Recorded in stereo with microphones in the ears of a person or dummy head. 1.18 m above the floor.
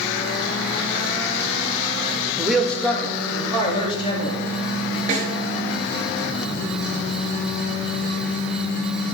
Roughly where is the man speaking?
Centre.